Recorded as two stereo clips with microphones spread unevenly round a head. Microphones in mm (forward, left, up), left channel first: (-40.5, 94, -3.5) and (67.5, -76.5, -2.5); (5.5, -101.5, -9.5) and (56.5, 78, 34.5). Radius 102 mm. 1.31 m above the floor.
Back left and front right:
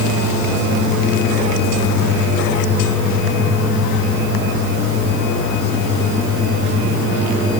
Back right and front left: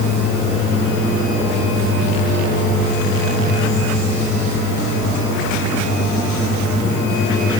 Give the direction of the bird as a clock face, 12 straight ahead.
I don't hear a bird.